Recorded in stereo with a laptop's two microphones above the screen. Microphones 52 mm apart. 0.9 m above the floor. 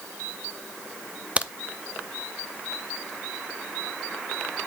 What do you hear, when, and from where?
1.4 s a crack: 20° right (ahead or behind), 0.5 m